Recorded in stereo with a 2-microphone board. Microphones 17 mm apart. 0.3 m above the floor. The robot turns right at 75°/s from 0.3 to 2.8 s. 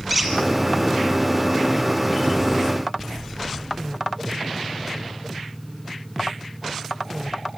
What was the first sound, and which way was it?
A squeak, 5° right (ahead or behind).